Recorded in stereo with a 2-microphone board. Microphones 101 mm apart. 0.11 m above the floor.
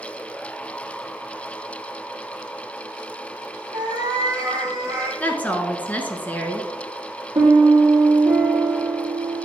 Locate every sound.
3.7 s a cat meowing: 50° right (ahead or behind), 1.8 m; by 5.1 s 30° right (ahead or behind), 2.5 m
5.2 s a woman speaking: 15° left (ahead or behind), 1.0 m
7.3 s a piano: 60° right (ahead or behind), 2.0 m